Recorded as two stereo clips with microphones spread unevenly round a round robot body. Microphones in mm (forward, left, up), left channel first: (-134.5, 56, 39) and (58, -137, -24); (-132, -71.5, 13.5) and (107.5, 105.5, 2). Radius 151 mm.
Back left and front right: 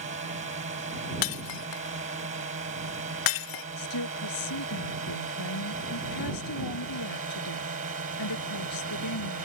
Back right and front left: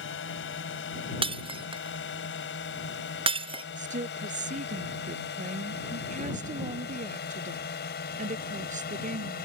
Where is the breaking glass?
110° left.